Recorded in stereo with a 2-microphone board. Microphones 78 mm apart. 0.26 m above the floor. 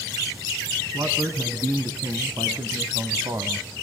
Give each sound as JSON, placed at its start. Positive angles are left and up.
{"t": 0.9, "sound": "a man speaking", "side_deg": -40, "distance_m": 2.5}